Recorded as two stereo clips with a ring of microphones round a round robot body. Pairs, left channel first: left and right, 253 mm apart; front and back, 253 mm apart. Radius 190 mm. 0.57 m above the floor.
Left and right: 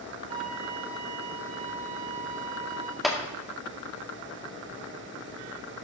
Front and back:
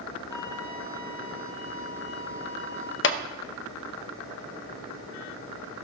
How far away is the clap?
About 0.6 m.